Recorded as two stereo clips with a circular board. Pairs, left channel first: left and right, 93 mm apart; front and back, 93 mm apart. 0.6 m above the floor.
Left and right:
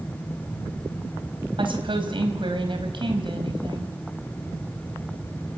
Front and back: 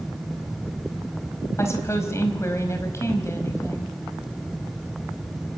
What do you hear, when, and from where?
1.6 s a woman speaking: 60° right, 4 m